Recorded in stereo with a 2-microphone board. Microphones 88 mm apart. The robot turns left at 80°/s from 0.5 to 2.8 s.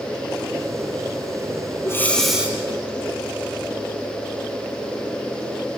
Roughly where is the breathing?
Ahead left.